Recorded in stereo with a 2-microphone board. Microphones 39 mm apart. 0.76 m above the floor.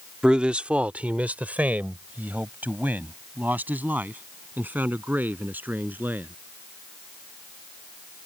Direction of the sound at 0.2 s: 20° right (ahead or behind).